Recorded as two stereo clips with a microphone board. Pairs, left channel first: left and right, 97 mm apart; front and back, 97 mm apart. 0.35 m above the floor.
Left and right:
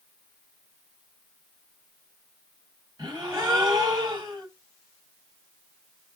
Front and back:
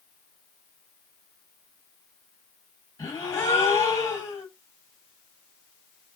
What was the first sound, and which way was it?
A gasp, 50° right.